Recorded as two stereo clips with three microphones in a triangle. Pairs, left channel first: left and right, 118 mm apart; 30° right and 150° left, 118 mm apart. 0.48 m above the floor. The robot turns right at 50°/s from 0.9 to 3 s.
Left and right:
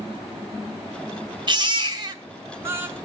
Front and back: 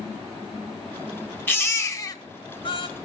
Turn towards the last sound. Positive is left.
turn(degrees=-20)